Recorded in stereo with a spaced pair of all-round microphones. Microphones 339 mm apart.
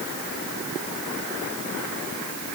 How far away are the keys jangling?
I don't hear keys jangling.